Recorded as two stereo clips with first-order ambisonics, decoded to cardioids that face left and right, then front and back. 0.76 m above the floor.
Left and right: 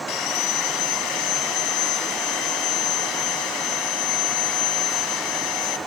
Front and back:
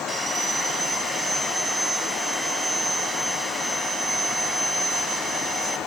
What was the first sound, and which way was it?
Sawing, 100° left.